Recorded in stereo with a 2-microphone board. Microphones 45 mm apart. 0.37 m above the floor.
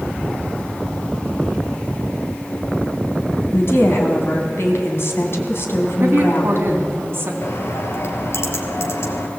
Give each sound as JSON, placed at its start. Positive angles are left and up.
{"t": 3.5, "sound": "a woman speaking", "side_deg": 55, "distance_m": 3.5}
{"t": 6.0, "sound": "a woman speaking", "side_deg": -50, "distance_m": 3.5}
{"t": 7.4, "sound": "a bird", "side_deg": 65, "distance_m": 2.5}